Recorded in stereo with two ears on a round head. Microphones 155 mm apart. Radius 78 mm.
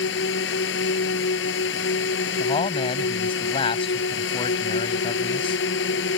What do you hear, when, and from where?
0.0 s a drone: 80° left
2.4 s a man speaking: 30° left (ahead or behind)